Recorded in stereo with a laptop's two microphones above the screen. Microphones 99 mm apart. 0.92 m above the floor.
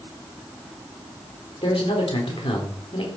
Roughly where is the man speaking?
Left.